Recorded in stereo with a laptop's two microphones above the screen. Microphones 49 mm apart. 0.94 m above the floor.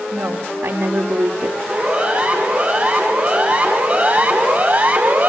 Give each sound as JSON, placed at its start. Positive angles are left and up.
{"t": 0.1, "sound": "a woman speaking", "side_deg": -75, "distance_m": 2.5}
{"t": 1.7, "sound": "a siren", "side_deg": -35, "distance_m": 7.5}